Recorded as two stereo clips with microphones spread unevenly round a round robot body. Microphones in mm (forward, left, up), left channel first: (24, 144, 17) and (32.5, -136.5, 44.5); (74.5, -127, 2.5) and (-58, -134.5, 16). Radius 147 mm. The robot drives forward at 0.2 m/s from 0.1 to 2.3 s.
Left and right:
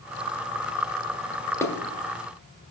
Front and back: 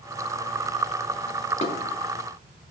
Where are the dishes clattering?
15° left, 0.9 m; by 1.7 s 20° left, 0.9 m.